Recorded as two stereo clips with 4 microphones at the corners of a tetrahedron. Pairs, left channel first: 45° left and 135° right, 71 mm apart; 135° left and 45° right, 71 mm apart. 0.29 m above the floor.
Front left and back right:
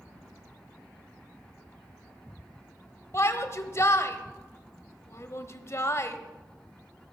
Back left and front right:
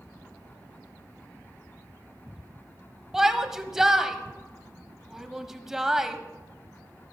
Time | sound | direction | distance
3.1 | a shout | 35° left | 1.2 m